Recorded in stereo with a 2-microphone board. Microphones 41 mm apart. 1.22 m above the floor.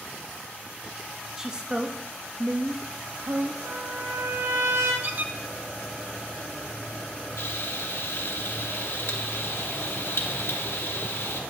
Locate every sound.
1.4 s a woman speaking: 15° right (ahead or behind), 1.5 m; by 3.5 s 70° right (ahead or behind), 2.5 m
3.6 s a trumpet: 75° right (ahead or behind), 6 m
5.0 s a squeak: 50° right (ahead or behind), 1.2 m
7.4 s frying: 70° left (ahead or behind), 1.4 m